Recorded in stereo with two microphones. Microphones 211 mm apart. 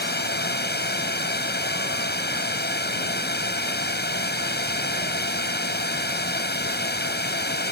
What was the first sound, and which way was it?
A drone, 50° left (ahead or behind).